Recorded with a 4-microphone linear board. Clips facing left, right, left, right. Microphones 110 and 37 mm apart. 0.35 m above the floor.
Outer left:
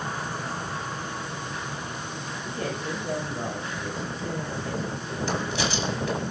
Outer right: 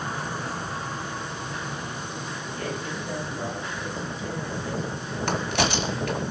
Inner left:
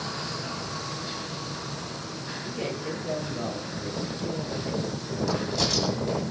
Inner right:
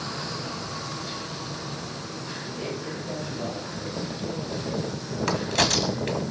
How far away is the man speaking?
About 10 m.